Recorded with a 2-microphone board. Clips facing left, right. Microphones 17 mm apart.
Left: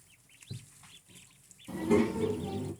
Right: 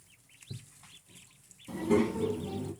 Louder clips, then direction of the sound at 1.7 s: Even; 15° right (ahead or behind).